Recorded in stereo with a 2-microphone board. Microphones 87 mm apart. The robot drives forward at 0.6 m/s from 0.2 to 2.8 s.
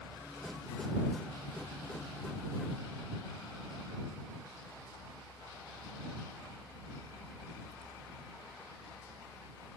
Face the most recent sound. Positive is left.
No sound to turn to.